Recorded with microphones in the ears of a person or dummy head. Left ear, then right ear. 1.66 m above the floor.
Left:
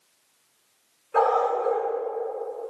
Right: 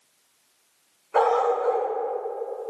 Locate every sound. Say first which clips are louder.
1.1 s a dog barking: right 1 dB; 25° right (ahead or behind), 5 m